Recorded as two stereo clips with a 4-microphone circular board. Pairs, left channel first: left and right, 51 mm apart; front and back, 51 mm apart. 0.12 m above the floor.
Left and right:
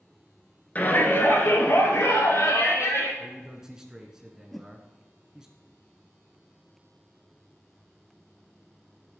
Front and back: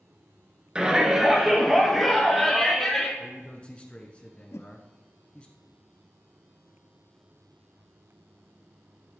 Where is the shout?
120° left, 1.5 m; by 3.1 s 85° left, 3.5 m.